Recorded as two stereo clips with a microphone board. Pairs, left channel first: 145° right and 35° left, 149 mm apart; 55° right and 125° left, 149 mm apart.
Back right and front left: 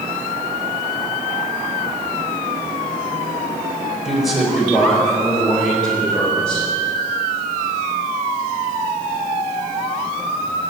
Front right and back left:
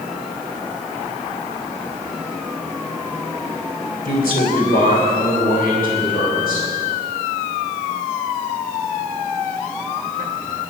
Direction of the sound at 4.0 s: 55° right.